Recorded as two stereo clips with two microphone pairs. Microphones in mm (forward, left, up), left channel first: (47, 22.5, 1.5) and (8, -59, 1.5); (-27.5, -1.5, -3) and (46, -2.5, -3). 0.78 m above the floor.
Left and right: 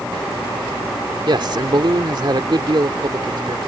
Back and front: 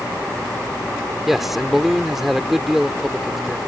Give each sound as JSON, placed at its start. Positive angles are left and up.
{"t": 1.3, "sound": "a man speaking", "azimuth_deg": -90}